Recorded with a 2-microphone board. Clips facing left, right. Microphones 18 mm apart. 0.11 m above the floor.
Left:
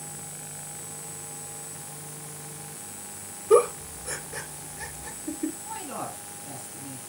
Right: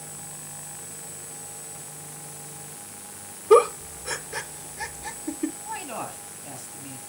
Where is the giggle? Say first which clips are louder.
Right 3 dB; 25° right (ahead or behind), 0.7 m.